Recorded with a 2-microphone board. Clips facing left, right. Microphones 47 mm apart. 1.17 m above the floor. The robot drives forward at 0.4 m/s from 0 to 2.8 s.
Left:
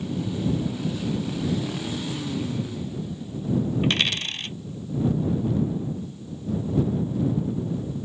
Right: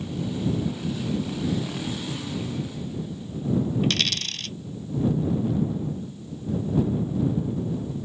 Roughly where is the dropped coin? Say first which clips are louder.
Left 2 dB; left.